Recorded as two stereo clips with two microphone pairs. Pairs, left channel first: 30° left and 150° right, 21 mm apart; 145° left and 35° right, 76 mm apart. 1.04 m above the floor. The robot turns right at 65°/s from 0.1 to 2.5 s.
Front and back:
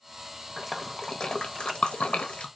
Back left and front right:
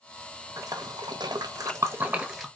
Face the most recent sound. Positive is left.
turn(degrees=55)